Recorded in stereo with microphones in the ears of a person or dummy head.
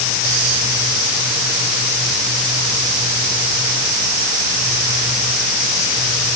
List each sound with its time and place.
Only background noise.